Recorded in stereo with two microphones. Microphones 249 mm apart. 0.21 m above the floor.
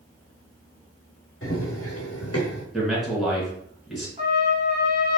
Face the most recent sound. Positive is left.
turn(degrees=-30)  # may be behind; listen again after turning